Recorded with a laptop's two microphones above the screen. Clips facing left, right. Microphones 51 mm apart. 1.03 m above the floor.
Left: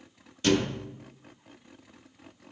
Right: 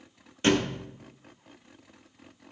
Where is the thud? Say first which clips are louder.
Right 1 dB; 30° right (ahead or behind), 0.6 m.